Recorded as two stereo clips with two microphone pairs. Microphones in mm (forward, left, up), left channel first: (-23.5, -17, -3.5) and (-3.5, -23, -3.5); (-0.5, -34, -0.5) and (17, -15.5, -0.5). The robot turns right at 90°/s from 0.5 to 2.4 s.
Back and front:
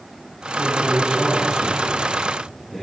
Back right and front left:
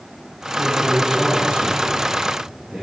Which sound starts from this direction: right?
A man speaking, at 0.6 s.